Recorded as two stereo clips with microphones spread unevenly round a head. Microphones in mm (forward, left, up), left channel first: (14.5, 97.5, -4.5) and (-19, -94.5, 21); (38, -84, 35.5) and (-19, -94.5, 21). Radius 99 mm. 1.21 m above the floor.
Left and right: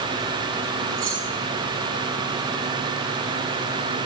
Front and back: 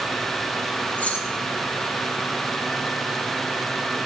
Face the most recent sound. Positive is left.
turn(degrees=-50)